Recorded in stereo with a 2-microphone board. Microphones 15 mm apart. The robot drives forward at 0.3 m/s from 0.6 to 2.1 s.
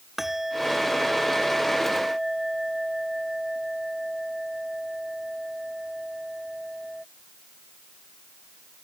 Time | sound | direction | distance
0.2 | a bell | 25° right (ahead or behind) | ?